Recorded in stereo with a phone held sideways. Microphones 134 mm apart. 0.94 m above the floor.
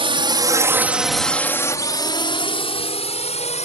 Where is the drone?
45° right (ahead or behind); by 3.7 s 55° left (ahead or behind).